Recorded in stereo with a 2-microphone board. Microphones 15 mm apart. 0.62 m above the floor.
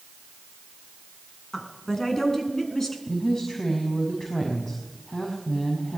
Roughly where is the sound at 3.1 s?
Left.